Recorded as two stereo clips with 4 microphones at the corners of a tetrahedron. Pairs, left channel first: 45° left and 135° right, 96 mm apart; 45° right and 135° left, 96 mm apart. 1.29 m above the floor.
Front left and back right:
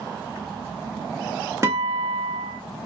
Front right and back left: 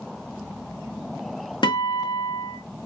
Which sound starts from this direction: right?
A guitar, at 1.6 s.